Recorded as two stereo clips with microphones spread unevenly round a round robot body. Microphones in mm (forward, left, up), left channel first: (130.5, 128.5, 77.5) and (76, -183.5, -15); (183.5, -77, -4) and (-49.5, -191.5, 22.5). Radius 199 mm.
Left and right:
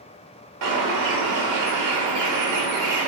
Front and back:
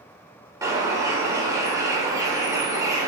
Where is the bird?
75° right, 1.3 m.